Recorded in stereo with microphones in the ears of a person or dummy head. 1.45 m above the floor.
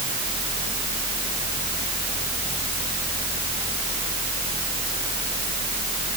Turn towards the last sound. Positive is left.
No sound to turn to.